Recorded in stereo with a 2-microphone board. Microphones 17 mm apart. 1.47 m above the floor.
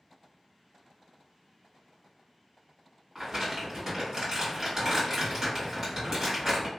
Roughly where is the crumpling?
Right.